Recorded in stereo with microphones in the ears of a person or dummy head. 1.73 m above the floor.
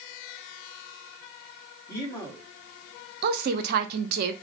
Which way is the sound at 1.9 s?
15° left (ahead or behind).